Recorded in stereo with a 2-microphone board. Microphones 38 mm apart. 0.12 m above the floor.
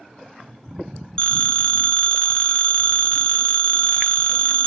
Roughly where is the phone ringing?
Left.